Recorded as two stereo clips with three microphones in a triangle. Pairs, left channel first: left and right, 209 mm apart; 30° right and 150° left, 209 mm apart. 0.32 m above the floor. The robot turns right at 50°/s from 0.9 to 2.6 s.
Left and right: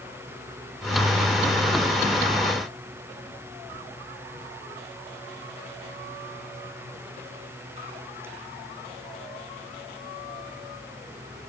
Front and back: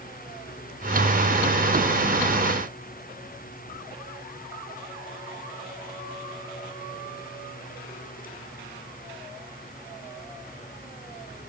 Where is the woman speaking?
I don't hear a woman speaking.